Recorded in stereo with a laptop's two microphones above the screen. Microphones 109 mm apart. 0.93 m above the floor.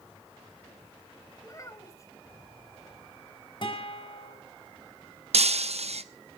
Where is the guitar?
50° left (ahead or behind), 4 m.